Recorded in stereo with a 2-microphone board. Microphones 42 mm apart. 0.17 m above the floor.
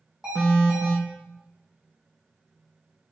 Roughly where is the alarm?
Centre.